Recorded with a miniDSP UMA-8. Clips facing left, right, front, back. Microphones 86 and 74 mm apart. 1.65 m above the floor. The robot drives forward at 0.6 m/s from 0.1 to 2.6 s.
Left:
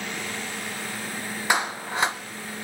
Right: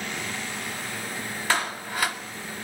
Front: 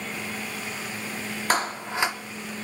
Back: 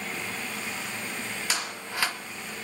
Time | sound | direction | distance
1.5 | a clap | 25° left | 0.7 m